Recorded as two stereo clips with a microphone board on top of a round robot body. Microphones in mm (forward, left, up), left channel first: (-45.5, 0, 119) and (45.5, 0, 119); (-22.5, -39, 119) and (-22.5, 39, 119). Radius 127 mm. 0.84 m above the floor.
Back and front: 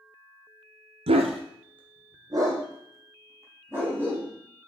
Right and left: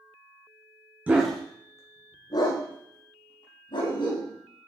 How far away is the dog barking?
About 0.9 m.